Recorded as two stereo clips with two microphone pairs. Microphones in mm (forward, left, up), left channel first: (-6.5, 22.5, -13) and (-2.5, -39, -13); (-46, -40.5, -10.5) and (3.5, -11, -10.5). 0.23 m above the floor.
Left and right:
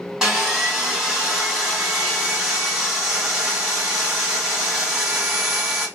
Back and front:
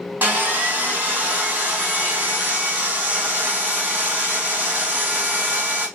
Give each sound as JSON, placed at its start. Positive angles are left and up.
{"t": 0.2, "sound": "sawing", "azimuth_deg": -10, "distance_m": 1.6}